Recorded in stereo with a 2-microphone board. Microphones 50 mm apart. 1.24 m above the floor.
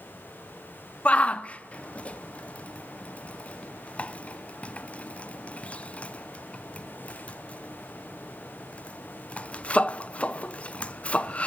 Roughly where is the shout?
Left.